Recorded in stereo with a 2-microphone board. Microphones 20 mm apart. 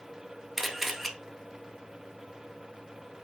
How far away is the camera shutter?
About 0.5 m.